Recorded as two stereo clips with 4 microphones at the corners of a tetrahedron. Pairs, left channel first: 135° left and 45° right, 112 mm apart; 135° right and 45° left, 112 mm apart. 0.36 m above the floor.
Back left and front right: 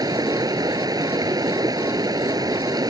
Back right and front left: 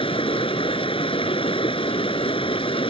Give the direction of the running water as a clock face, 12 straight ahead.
3 o'clock.